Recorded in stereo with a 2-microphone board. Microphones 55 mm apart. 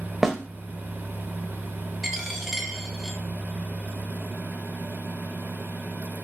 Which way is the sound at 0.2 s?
10° right (ahead or behind).